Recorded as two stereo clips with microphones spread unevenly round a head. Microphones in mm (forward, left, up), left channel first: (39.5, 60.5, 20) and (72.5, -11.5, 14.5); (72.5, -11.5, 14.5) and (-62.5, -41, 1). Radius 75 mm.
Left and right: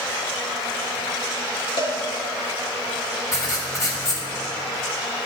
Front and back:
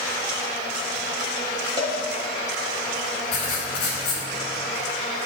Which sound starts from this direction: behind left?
A cowbell, at 1.8 s.